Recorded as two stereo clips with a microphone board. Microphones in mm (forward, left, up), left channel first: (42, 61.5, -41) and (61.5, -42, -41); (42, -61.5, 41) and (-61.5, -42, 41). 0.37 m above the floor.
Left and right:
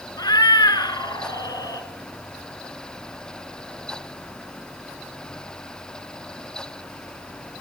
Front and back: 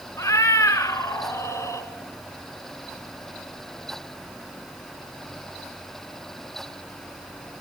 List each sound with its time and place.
0.2 s a cat meowing: 50° left, 1.5 m